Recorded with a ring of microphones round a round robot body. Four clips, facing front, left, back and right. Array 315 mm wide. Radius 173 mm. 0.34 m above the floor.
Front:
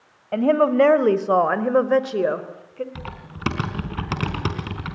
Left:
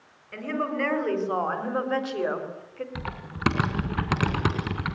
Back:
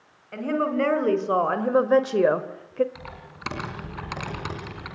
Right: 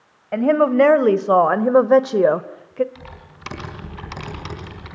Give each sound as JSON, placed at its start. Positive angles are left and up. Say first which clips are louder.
{"t": 0.3, "sound": "a woman speaking", "louder": "right 14 dB, front 8 dB", "azimuth_deg": -50, "distance_m": 3.0}
{"t": 3.0, "sound": "typing on a keyboard", "louder": "left 5 dB, front 5 dB", "azimuth_deg": 50, "distance_m": 4.5}